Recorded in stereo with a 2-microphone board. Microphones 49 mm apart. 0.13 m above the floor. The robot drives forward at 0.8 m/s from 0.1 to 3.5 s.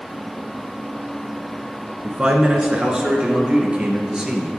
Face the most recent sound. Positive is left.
turn(degrees=-15)  # may be behind; listen again after turning